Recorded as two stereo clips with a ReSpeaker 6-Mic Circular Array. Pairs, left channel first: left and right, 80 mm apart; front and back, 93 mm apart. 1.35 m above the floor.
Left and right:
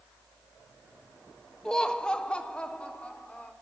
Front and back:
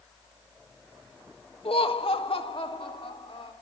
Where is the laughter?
10° left, 1.3 m; by 3.5 s 15° left, 4 m.